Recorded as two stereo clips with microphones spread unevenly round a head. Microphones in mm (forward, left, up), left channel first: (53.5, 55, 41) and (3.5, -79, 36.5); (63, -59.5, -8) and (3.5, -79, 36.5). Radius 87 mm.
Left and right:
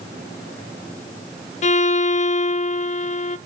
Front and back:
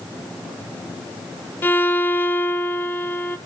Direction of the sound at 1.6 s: 35° left.